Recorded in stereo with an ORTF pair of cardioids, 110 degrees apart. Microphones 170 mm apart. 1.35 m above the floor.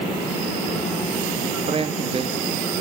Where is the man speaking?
35° right, 1.8 m.